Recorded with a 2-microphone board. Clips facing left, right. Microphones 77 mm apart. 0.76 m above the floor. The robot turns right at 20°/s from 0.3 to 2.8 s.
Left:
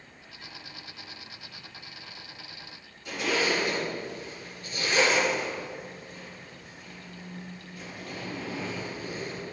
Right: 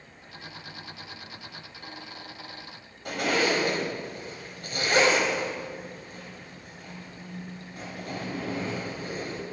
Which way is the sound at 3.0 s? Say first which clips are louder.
Right 2 dB; 55° right (ahead or behind).